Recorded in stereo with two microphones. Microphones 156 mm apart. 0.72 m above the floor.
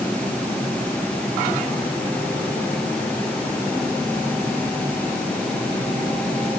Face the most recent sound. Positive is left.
No sound to turn to.